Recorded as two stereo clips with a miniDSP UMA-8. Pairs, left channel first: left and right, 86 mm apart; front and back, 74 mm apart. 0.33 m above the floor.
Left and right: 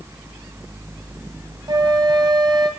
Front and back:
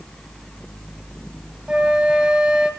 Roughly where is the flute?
Right.